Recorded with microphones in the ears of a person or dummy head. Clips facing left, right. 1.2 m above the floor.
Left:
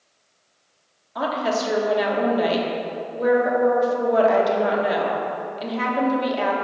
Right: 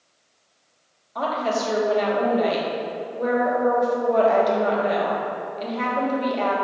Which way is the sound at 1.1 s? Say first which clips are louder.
Left 1 dB; 10° left (ahead or behind).